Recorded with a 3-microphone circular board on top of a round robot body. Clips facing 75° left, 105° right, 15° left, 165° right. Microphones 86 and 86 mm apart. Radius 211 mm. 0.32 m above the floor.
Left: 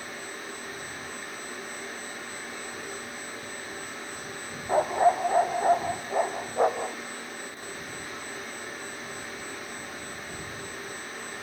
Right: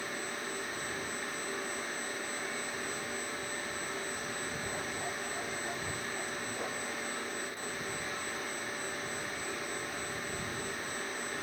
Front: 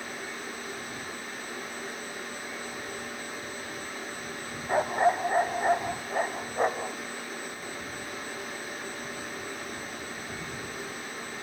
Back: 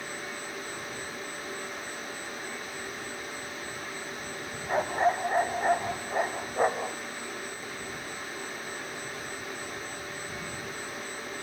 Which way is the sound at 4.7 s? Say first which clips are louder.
Left 16 dB, front 2 dB; 95° left.